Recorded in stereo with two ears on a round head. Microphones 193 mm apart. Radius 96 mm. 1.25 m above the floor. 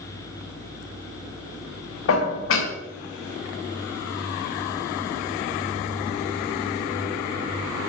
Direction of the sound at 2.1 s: 65° left (ahead or behind).